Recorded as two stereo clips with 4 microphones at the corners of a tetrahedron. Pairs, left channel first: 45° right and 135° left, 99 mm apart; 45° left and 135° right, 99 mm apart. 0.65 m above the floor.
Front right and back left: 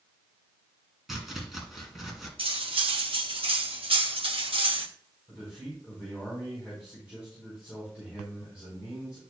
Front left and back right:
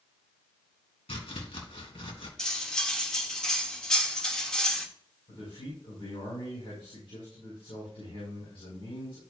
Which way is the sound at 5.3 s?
55° left.